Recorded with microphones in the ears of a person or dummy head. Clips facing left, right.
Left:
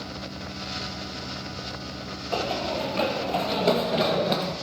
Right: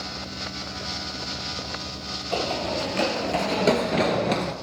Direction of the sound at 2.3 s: 20° right (ahead or behind).